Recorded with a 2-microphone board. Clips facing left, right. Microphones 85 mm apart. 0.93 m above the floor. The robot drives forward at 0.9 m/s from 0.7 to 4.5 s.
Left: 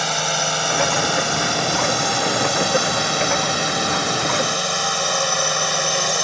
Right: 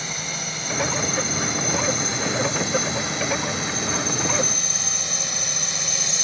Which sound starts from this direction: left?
A drone, at 0.0 s.